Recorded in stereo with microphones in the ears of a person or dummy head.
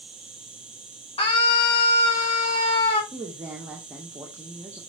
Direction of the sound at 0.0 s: Centre (ahead or behind).